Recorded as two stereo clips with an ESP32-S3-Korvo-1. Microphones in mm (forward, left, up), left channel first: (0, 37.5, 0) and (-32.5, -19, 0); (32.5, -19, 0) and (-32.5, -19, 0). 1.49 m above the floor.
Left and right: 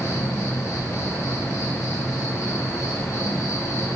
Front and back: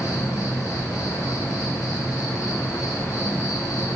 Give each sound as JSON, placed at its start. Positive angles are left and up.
{"t": 0.0, "sound": "an insect", "azimuth_deg": 25, "distance_m": 1.6}